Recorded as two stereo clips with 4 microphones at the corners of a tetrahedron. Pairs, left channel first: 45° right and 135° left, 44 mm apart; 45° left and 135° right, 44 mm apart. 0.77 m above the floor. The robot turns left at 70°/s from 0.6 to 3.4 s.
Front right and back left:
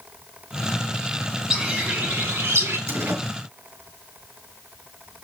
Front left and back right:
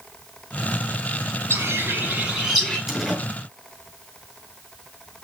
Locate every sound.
1.5 s a bird: 145° right, 8 m; by 2.8 s 125° left, 8 m
2.9 s a door slam: 140° left, 7 m; by 3.2 s 120° left, 7 m